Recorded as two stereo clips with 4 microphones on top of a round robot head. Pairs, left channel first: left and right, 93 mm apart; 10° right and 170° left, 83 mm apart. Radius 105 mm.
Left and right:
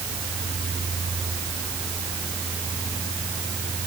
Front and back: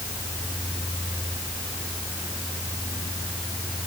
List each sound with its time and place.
Only background noise.